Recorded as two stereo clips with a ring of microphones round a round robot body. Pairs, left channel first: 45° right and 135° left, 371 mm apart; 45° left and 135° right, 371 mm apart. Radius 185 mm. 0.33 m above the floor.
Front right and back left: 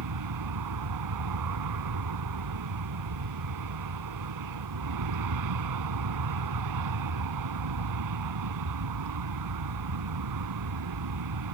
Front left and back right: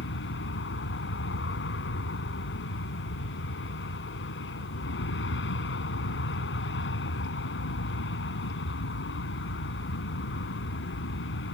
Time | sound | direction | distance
0.0 | an aircraft | 105° left | ?